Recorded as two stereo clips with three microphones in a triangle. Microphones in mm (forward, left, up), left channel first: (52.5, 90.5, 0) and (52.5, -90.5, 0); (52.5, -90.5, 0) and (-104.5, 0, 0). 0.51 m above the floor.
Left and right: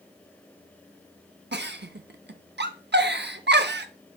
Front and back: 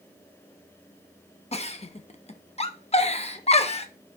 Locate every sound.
1.5 s a giggle: 85° right, 0.6 m